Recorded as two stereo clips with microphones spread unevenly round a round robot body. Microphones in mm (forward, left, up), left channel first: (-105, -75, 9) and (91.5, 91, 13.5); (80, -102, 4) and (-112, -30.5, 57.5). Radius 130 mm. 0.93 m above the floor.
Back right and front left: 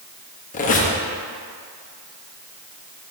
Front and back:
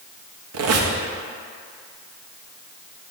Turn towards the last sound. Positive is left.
turn(degrees=160)